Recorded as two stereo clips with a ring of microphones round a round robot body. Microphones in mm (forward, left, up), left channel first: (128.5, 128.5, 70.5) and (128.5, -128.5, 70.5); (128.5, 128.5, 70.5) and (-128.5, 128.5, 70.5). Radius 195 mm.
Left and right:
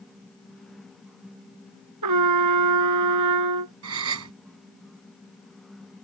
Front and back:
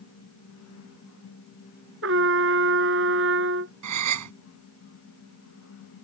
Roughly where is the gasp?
Behind right.